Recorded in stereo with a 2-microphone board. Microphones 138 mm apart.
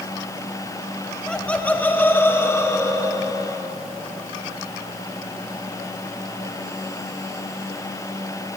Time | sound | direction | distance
1.3 | laughter | 5° left (ahead or behind) | 1.6 m